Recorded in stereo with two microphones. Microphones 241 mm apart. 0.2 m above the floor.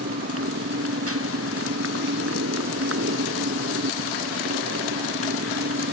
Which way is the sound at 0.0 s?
65° right (ahead or behind).